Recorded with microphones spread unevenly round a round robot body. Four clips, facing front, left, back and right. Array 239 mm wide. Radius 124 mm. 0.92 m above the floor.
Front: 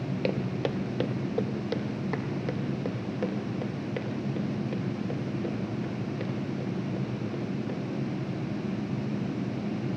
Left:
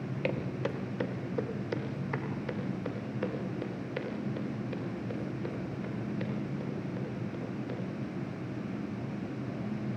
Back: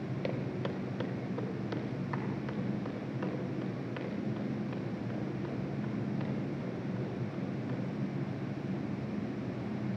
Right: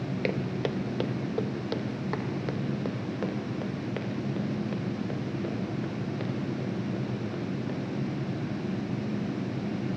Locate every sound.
0.2 s footsteps: 25° right, 1.3 m; by 7.7 s 40° right, 10 m